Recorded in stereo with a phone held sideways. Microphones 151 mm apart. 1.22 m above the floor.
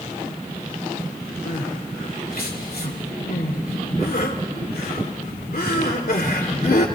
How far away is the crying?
About 2.5 m.